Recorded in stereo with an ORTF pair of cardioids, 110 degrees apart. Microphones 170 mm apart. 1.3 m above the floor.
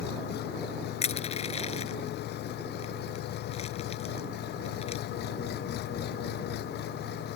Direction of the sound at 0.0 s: 70° left.